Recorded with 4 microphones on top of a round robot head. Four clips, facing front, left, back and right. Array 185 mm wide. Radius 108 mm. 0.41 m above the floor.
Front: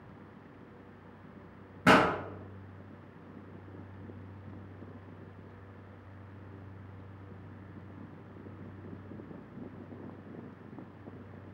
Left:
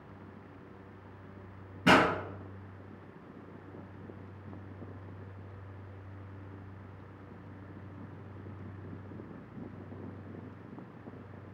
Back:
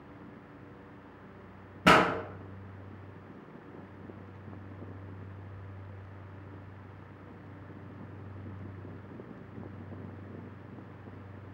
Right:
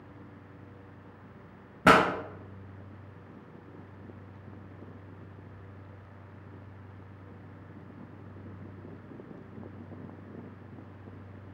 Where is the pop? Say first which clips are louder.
Right 3 dB, back 1 dB; 105° right, 0.8 m.